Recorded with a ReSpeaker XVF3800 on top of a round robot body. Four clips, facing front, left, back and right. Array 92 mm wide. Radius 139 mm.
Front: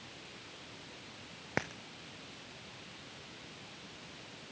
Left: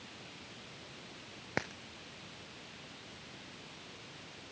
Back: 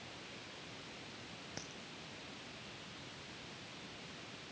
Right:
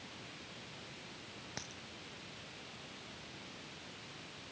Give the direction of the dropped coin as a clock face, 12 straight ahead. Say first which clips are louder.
Left 14 dB, front 17 dB; 11 o'clock.